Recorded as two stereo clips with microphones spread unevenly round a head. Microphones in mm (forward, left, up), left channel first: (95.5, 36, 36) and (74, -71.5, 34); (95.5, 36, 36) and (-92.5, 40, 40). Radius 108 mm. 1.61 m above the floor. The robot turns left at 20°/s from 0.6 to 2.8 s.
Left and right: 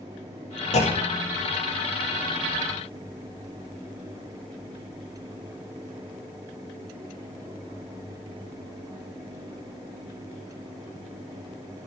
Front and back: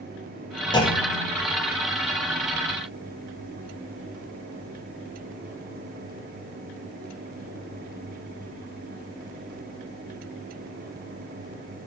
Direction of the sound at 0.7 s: 65° left.